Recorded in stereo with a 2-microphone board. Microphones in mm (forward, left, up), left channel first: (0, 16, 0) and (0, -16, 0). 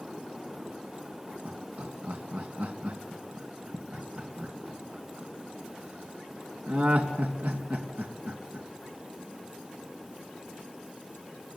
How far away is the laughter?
About 3 m.